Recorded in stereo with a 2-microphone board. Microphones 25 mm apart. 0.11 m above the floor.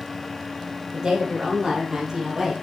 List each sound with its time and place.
0.9 s a woman speaking: 35° right (ahead or behind), 3.5 m; by 2.5 s 15° right (ahead or behind), 3 m